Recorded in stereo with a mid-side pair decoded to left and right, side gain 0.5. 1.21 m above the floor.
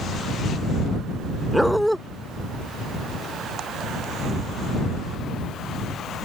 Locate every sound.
1.5 s a dog barking: straight ahead